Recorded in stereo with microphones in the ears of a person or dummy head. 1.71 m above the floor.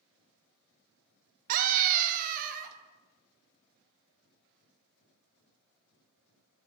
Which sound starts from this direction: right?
A scream, at 1.5 s.